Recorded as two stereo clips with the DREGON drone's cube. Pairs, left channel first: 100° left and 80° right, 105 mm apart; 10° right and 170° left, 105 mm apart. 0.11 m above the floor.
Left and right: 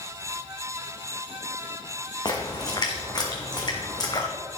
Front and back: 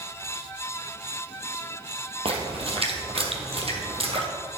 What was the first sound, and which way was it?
A splash, 145° left.